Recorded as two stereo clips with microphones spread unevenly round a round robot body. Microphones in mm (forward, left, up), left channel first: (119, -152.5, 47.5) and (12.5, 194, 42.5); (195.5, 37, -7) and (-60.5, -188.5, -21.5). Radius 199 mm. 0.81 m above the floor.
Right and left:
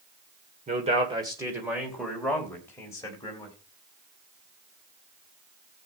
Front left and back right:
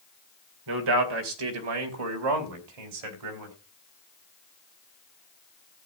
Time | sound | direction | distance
0.7 | a man speaking | straight behind | 2.5 m